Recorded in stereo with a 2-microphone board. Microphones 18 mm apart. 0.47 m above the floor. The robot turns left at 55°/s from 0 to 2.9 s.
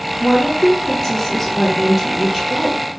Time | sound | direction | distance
0.2 | a woman speaking | 85° left | 0.9 m